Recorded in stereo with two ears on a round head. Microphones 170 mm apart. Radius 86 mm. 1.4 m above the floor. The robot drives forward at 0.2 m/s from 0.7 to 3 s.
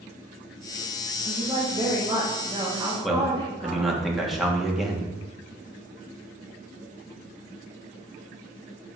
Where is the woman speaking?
25° right (ahead or behind), 1.2 m; by 4.0 s 20° right (ahead or behind), 1.6 m.